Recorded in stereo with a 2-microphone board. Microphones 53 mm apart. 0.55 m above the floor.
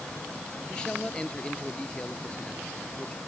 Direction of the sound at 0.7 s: 15° left (ahead or behind).